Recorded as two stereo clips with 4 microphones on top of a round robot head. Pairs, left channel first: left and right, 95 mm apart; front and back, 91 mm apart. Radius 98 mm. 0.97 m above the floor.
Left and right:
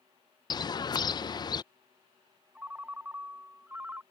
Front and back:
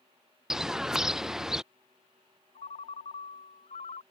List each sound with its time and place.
0.5 s a bird: 100° left
2.5 s a ringtone: 15° right